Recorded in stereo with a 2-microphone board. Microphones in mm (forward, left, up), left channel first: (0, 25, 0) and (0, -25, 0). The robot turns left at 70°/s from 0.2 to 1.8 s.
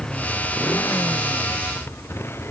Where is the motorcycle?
160° left; by 2.5 s 50° left.